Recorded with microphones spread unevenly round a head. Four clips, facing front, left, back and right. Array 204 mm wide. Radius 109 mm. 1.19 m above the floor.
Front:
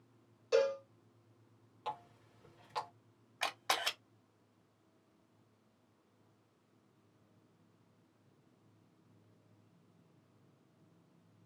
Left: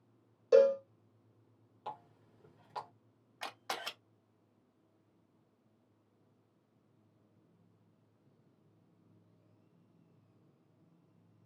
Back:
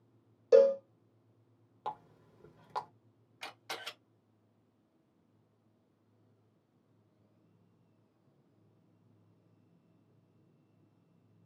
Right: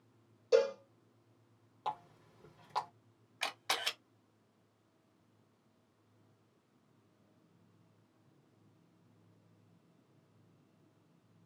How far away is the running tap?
About 0.9 m.